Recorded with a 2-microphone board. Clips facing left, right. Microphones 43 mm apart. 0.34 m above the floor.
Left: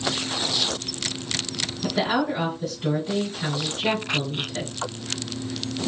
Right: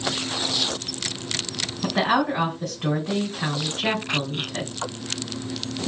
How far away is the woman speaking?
About 3 m.